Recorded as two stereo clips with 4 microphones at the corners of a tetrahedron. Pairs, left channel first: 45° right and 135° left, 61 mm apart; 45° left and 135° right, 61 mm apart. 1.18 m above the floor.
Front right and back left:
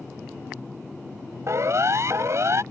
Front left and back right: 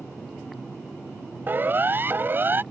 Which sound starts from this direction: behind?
A siren, at 1.5 s.